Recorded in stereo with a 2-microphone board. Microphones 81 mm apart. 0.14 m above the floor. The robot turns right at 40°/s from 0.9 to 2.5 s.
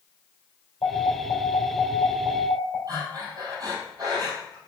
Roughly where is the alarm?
Left.